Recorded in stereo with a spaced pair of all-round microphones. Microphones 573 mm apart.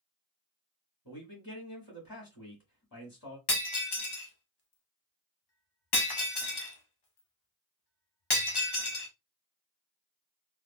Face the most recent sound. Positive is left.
turn(degrees=45)  # may be behind; listen again after turning